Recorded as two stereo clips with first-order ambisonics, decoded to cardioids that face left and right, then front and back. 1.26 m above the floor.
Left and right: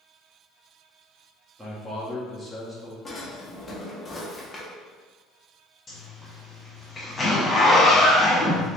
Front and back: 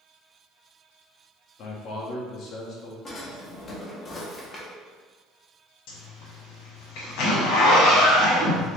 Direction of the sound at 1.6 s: 10° right.